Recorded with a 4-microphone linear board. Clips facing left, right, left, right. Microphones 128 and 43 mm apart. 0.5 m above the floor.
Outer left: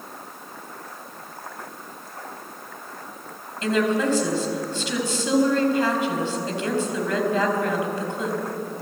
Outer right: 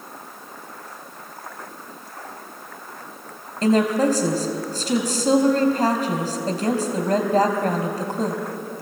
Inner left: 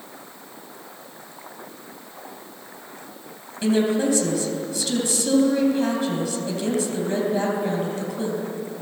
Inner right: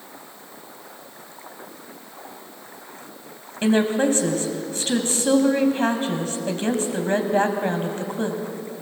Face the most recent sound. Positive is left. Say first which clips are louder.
# outer right 4 dB, inner right 1 dB
turn(degrees=-40)  # may be behind; listen again after turning